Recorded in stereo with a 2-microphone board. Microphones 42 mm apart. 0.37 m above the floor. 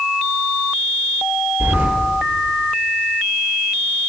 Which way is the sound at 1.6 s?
75° right (ahead or behind).